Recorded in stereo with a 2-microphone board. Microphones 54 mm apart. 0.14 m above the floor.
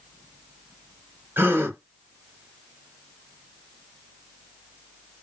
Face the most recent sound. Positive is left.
turn(degrees=-40)  # may be behind; listen again after turning